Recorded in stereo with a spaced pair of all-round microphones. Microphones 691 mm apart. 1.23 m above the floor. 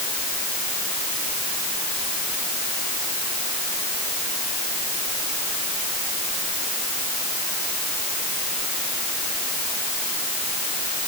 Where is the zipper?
No zipper in this recording.